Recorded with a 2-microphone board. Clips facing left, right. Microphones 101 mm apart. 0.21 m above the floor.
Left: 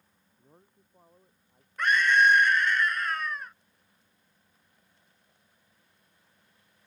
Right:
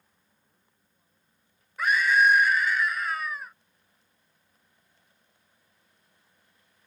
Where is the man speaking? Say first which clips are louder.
Left 10 dB; 60° left (ahead or behind); by 1.7 s 55° left (ahead or behind).